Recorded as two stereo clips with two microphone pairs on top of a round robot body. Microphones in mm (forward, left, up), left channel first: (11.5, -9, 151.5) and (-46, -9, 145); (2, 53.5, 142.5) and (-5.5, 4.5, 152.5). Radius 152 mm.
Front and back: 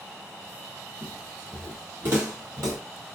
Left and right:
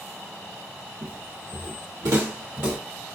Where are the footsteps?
95° right, 1.4 m; by 2.8 s 145° right, 1.2 m.